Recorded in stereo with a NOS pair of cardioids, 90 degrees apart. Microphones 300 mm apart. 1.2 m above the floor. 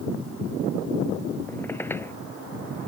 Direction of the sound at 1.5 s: 5° left.